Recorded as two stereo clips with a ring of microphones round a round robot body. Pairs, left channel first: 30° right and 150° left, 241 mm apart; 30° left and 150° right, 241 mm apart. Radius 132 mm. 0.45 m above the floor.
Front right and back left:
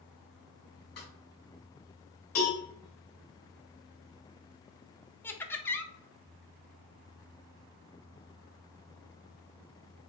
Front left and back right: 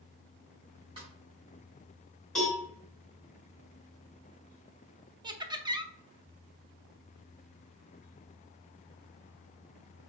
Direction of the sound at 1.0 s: 80° right.